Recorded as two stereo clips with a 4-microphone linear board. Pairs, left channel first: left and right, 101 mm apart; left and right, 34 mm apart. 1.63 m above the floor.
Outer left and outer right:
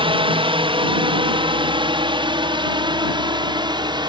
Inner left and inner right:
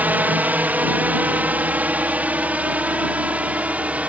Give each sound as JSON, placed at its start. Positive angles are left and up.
{"t": 0.0, "sound": "a drone", "side_deg": -60}